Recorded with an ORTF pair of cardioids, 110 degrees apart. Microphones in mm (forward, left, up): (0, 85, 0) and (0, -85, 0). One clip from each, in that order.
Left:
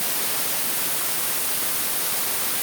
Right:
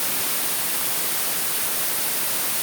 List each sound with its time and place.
Only background noise.